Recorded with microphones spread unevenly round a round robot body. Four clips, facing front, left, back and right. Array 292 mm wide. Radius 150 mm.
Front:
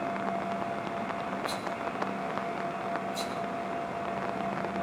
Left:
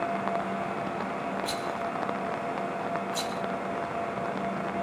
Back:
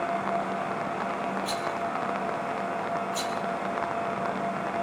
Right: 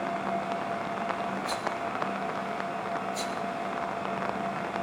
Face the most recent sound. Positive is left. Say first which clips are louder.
# even, back 4 dB
turn(degrees=110)